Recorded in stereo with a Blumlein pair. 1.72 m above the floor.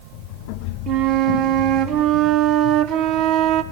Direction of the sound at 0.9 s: 35° right.